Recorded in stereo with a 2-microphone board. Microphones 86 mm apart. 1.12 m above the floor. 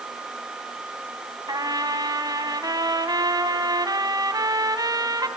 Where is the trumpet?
50° right (ahead or behind), 2 m.